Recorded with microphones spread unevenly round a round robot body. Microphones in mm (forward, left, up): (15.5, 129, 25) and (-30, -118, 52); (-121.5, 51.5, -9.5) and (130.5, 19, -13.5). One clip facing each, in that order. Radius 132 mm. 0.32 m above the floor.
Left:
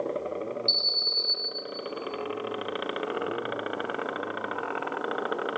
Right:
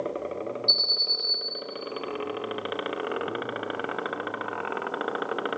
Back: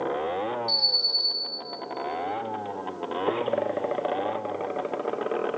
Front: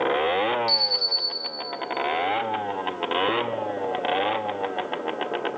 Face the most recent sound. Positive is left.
turn(degrees=0)